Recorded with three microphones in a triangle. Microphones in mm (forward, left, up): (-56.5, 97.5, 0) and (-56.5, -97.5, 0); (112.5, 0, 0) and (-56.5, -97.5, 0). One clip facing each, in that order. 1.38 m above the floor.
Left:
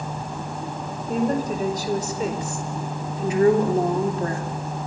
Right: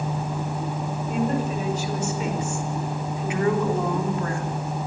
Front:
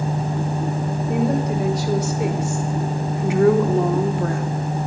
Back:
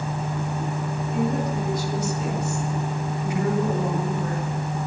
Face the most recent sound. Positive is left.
turn(degrees=35)